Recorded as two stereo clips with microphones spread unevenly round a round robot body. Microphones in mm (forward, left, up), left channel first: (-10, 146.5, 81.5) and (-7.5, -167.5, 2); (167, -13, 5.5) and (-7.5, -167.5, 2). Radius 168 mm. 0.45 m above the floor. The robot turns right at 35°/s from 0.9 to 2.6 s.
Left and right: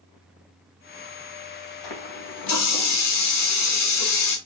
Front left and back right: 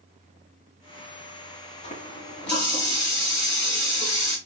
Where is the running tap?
105° left, 2 m; by 4.4 s 130° left, 2 m.